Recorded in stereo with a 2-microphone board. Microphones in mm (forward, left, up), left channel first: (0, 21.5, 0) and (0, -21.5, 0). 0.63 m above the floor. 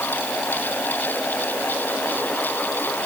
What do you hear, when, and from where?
Only background noise.